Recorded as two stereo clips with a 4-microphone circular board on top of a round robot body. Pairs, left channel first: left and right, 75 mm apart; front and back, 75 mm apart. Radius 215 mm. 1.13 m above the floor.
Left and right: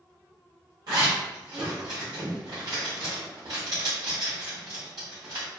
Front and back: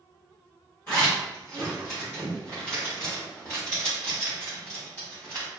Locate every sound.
0.9 s a zipper: 55° right, 0.9 m